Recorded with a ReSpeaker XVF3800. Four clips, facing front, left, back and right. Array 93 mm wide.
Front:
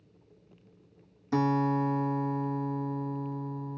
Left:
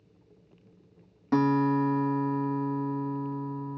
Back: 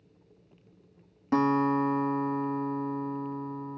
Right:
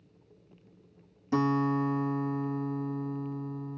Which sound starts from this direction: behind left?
A guitar, at 1.3 s.